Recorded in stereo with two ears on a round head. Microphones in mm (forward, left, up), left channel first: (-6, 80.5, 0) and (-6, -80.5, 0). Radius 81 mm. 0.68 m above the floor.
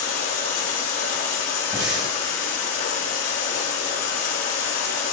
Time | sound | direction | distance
0.0 | running water | 55° left (ahead or behind) | 2.5 m
1.7 | breathing | 25° right (ahead or behind) | 1.8 m